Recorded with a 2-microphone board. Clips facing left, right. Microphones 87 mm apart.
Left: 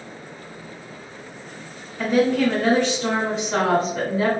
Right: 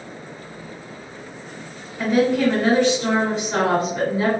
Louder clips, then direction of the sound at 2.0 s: Right 1 dB; 5° right (ahead or behind).